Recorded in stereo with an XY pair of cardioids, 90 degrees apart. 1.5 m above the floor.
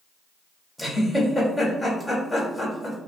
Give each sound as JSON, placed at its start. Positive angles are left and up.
{"t": 0.8, "sound": "a giggle", "azimuth_deg": 10, "distance_m": 1.5}